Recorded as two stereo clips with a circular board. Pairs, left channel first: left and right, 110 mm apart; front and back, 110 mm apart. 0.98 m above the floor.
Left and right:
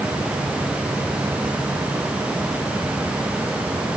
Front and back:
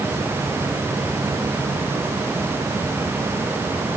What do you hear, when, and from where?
Only background noise.